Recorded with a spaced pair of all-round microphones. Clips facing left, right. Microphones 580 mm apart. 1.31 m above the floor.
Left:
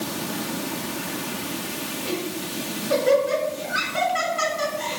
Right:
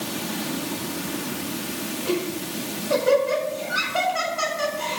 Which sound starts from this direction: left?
Laughter, at 2.0 s.